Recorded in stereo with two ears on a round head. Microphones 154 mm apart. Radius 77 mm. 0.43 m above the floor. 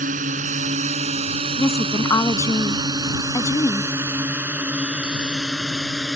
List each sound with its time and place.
0.0 s a drone: 45° right (ahead or behind); by 6.2 s centre (ahead or behind)
1.6 s a woman speaking: 20° left (ahead or behind)